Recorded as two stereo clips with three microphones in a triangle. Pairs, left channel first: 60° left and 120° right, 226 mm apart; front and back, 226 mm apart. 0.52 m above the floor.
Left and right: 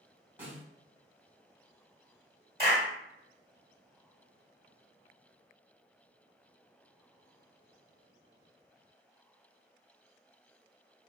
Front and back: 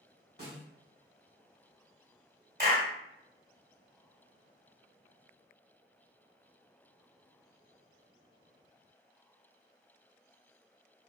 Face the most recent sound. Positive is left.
turn(degrees=-155)